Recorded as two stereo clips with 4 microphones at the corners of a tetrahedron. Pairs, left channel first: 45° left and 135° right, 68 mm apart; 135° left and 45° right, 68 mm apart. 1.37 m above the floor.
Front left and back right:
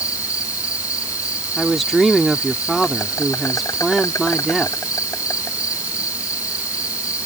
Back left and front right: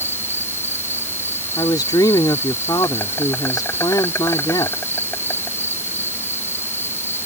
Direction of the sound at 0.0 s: 80° left.